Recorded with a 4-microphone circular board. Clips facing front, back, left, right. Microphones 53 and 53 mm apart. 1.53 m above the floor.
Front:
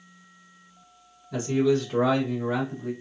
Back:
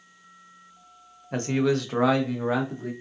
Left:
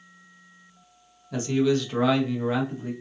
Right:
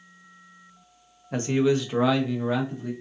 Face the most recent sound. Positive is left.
turn(degrees=165)